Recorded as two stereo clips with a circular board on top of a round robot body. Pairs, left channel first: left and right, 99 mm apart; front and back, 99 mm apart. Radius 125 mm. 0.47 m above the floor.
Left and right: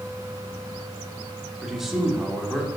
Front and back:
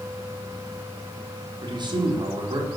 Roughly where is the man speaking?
Behind.